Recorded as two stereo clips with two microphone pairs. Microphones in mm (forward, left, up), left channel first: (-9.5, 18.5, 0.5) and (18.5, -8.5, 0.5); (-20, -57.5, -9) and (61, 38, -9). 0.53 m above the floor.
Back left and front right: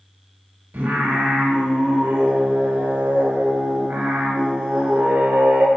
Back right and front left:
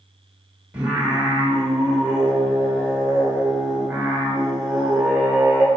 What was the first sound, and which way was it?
Singing, 25° right.